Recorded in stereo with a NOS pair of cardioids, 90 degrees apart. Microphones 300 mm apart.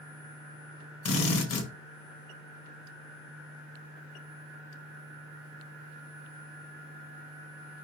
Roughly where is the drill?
Ahead left.